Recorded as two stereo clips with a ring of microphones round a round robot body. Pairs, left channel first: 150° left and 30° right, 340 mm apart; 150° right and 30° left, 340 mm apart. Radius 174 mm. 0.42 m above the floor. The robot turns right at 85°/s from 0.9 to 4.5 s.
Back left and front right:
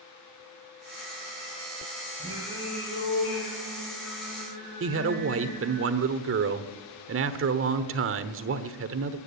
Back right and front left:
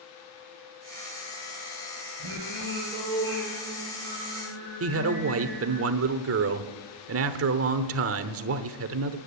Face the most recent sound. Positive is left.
turn(degrees=5)